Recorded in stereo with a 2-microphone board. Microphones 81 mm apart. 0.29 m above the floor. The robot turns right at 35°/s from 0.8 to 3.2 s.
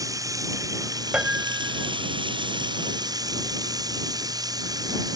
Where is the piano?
15° right (ahead or behind); by 1.9 s 30° right (ahead or behind).